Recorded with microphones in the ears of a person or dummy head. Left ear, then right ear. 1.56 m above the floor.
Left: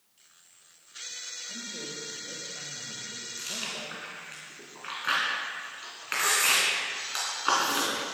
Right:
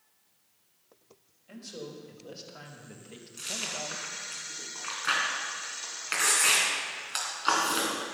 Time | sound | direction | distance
1.5 | a man speaking | 80° right | 2.5 m
3.4 | chewing | 15° right (ahead or behind) | 2.5 m